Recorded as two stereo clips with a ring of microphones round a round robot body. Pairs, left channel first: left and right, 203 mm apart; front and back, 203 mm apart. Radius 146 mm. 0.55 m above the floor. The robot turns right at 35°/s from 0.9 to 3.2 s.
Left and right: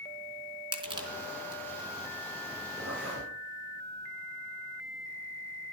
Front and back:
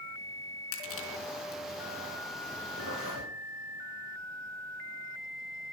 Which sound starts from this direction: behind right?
A zipper, at 2.8 s.